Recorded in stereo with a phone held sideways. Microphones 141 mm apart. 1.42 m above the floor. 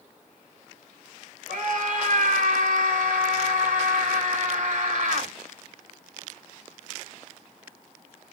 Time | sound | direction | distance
1.5 | a scream | 70° right (ahead or behind) | 3.5 m